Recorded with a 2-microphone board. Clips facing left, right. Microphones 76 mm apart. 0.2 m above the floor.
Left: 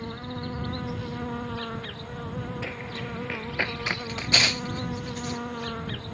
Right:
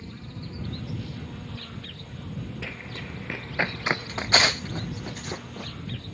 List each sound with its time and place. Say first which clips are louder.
0.0 s an insect: left 6 dB; 65° left (ahead or behind)
2.6 s running footsteps: left 3 dB; 15° left (ahead or behind); by 5.7 s 55° right (ahead or behind)